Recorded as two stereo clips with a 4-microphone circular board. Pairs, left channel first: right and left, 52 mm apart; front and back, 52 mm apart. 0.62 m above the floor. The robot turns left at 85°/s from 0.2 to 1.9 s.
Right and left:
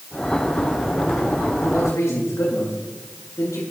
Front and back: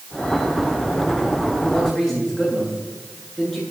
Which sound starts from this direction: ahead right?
A man speaking, at 1.6 s.